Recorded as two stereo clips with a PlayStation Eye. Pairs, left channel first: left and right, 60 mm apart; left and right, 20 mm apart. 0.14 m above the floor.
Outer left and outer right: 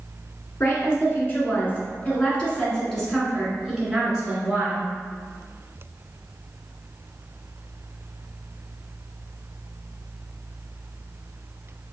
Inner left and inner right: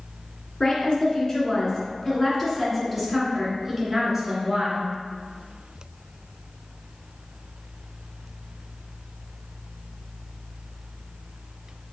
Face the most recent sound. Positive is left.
turn(degrees=-20)  # may be behind; listen again after turning